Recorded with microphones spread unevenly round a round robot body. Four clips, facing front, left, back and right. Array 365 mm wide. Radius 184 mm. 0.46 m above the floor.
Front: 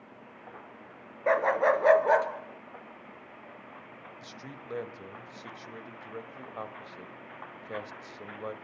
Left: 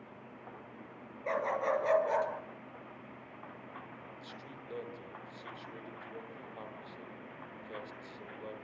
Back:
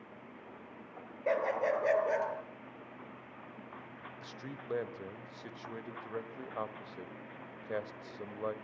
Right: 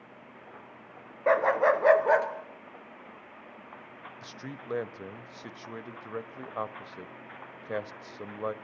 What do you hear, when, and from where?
1.3 s a dog barking: 65° right, 2.5 m; by 2.3 s 55° right, 2.5 m
4.2 s a man speaking: 85° right, 1.7 m